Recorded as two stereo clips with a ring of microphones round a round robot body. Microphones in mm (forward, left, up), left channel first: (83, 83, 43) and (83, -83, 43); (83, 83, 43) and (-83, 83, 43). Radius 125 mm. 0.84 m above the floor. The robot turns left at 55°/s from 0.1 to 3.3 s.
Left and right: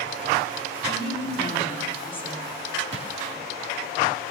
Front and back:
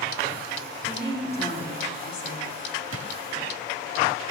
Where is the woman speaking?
100° left, 7.5 m; by 2.5 s 10° left, 7.5 m.